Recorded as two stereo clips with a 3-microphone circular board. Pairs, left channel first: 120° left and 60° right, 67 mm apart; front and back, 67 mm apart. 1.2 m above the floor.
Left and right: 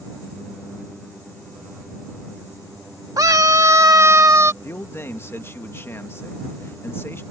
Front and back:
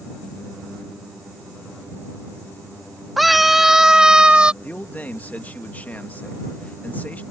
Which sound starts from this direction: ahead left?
A man speaking, at 4.6 s.